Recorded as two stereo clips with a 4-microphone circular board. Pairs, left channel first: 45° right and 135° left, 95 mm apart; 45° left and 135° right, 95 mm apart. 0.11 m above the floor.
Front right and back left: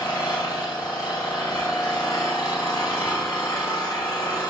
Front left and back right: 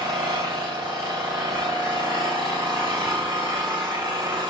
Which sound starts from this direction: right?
An engine running, at 0.0 s.